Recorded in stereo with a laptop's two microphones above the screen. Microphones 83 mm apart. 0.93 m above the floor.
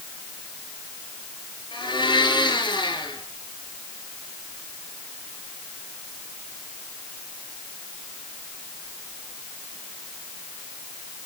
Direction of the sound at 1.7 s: 65° left (ahead or behind).